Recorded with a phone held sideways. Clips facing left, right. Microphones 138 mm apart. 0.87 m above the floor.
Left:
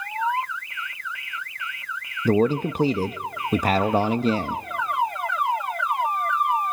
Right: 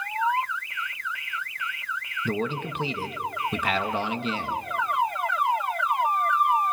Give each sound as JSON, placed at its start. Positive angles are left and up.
{"t": 2.2, "sound": "a man speaking", "side_deg": 35, "distance_m": 0.7}